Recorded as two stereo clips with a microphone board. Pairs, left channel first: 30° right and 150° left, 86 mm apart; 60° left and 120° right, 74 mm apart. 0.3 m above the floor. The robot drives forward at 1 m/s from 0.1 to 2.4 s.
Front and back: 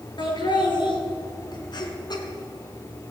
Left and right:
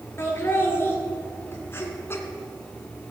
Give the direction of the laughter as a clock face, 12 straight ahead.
12 o'clock.